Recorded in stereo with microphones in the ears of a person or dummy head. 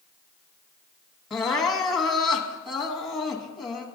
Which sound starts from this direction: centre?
Crying, at 1.3 s.